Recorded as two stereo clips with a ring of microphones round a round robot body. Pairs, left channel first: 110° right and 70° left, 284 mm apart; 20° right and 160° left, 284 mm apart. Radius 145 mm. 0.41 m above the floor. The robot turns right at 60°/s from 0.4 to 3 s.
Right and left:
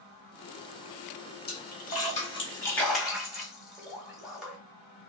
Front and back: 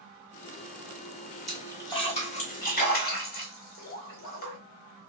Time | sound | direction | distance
1.5 | a splash | 110° right | 1.2 m